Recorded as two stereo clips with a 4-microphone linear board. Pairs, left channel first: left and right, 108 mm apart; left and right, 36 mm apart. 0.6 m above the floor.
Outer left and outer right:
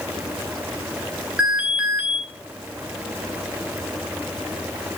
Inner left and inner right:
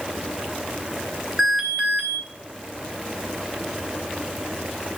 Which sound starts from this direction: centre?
An alarm, at 1.4 s.